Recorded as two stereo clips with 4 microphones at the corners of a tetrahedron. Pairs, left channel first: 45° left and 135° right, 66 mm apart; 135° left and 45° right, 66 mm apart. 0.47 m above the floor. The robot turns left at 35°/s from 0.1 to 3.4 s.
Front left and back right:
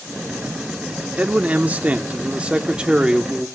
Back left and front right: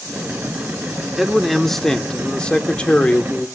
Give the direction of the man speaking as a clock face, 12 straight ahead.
4 o'clock.